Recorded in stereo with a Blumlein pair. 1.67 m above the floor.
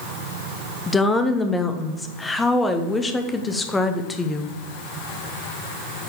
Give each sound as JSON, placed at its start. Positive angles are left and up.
{"t": 0.9, "sound": "a woman speaking", "azimuth_deg": 10, "distance_m": 1.0}